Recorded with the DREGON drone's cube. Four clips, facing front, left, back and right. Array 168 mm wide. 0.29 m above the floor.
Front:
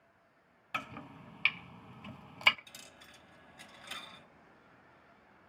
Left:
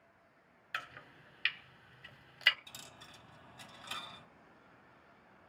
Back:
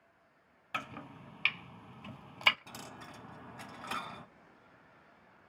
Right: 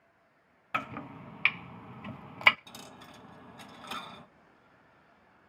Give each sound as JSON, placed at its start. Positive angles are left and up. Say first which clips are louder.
{"t": 0.7, "sound": "chopping", "louder": "right 10 dB, even", "azimuth_deg": -95, "distance_m": 0.5}
{"t": 2.7, "sound": "a dropped coin", "louder": "right 7 dB, back 9 dB", "azimuth_deg": -150, "distance_m": 0.8}